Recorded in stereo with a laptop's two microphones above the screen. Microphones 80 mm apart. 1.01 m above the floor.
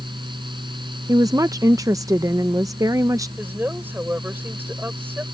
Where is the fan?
85° right.